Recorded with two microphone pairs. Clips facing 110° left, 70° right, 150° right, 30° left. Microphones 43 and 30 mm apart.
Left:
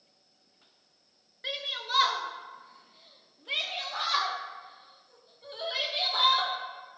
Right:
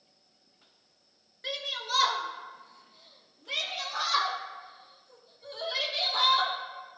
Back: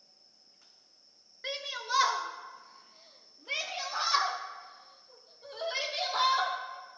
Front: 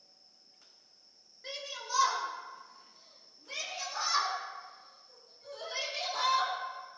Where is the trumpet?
I don't hear a trumpet.